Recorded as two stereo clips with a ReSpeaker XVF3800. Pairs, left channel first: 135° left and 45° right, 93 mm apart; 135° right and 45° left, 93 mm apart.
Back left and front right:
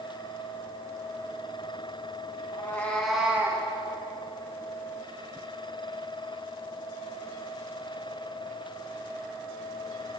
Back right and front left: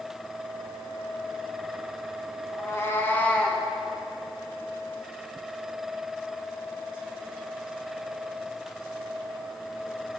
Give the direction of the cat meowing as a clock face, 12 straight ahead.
6 o'clock.